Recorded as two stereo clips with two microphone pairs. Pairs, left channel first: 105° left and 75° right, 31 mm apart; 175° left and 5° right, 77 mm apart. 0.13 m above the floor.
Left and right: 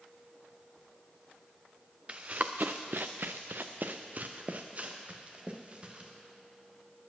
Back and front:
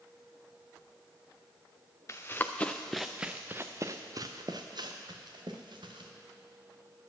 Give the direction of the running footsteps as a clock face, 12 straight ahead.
4 o'clock.